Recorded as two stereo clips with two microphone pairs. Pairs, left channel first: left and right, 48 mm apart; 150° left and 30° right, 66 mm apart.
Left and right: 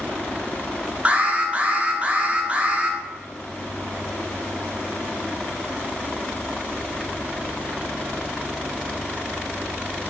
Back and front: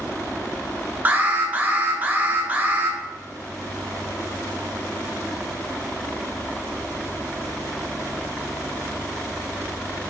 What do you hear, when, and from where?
1.1 s an alarm: 65° right, 0.6 m